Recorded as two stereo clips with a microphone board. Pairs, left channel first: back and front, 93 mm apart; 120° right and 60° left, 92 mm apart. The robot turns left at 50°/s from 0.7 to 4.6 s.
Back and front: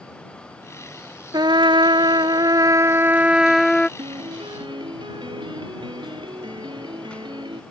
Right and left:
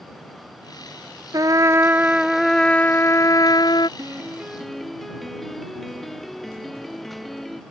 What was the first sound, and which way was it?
A trumpet, 25° left.